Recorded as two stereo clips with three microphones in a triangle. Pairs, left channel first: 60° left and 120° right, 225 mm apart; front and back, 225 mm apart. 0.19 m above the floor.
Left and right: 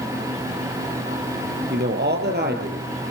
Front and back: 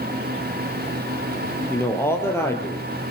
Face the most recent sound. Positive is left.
turn(degrees=-80)